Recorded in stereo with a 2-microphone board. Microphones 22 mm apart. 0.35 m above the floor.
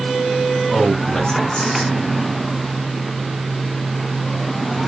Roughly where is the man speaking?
Left.